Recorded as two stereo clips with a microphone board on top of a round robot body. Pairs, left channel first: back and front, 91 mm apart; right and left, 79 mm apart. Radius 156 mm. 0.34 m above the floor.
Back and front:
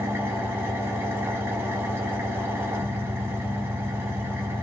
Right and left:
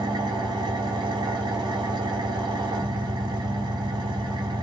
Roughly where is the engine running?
Ahead left.